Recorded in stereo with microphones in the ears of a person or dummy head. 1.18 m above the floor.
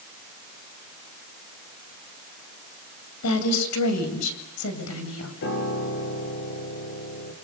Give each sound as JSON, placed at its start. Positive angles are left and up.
{"t": 3.2, "sound": "a woman speaking", "side_deg": 90, "distance_m": 6.5}
{"t": 5.4, "sound": "a piano", "side_deg": 65, "distance_m": 4.5}